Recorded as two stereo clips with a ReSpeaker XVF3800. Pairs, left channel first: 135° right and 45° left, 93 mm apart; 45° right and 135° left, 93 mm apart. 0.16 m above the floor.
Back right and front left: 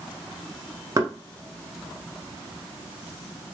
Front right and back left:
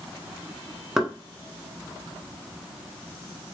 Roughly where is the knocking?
Ahead left.